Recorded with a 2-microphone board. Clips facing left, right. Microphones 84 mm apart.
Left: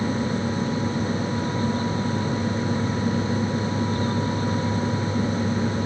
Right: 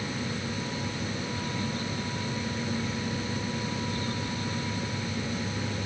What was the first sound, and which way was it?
Only background noise.